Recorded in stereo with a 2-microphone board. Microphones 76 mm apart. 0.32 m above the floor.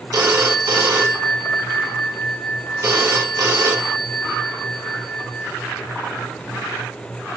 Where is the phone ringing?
50° right (ahead or behind), 1.8 m.